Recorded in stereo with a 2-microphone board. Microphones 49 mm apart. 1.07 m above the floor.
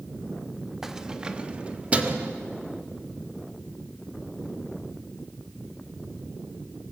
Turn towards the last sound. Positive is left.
turn(degrees=-35)  # may be behind; listen again after turning